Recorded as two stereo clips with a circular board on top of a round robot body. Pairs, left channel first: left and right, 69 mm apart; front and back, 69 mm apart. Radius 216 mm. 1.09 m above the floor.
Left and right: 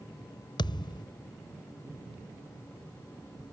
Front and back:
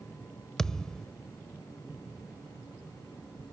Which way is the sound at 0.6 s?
80° left.